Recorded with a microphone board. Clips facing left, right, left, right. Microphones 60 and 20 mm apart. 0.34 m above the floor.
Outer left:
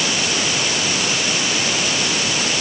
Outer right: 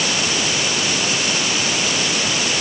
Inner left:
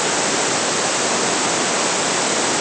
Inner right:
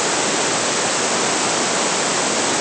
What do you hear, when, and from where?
Only background noise.